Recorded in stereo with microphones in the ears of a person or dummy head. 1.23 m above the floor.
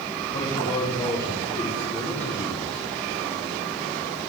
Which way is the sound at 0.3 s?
35° left (ahead or behind).